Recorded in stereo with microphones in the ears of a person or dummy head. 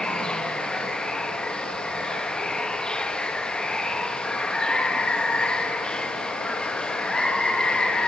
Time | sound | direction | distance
0.0 | running water | 5° left (ahead or behind) | 1.0 m